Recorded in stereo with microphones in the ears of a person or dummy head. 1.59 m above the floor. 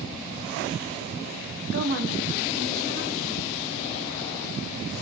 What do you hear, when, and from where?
1.7 s a woman speaking: 60° right (ahead or behind), 0.8 m; by 3.5 s 50° right (ahead or behind), 2 m